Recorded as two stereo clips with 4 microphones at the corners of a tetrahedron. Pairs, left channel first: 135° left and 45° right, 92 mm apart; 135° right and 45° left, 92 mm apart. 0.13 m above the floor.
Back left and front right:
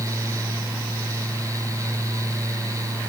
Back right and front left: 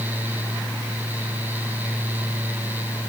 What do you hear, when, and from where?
Only background noise.